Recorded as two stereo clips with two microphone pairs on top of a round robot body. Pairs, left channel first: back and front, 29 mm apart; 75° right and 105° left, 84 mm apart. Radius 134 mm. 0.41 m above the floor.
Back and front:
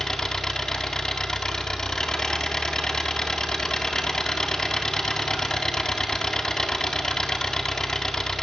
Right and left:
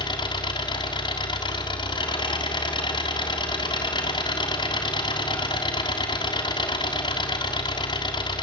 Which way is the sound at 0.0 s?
110° right.